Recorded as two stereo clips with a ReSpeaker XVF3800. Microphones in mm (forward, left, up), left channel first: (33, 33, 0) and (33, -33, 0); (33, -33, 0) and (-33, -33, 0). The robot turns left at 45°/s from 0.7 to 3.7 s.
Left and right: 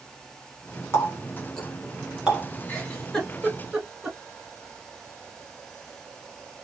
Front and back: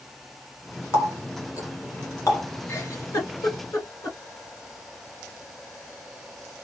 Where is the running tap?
45° left, 1.8 m; by 2.5 s 25° right, 1.8 m.